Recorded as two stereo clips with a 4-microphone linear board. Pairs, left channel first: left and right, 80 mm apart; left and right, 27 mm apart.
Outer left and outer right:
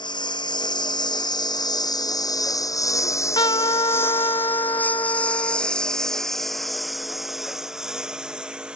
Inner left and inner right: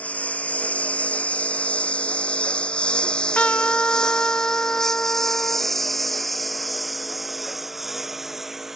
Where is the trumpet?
80° left.